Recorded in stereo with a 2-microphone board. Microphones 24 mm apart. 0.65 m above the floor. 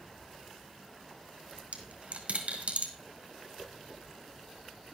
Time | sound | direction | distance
1.6 | a dropped coin | 60° right (ahead or behind) | 1.5 m